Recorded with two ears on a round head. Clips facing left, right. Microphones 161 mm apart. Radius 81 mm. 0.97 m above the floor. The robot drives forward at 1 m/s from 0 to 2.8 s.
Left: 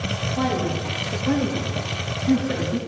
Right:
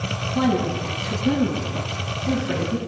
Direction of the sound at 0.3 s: 70° right (ahead or behind).